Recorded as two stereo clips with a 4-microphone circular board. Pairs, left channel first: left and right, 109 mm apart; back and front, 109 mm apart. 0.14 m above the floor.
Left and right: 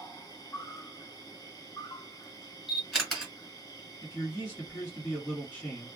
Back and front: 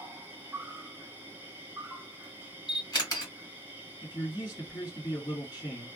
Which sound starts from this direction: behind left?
A man speaking, at 4.0 s.